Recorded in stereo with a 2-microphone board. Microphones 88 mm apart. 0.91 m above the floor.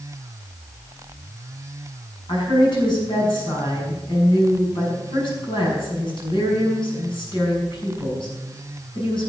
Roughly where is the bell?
No bell in this recording.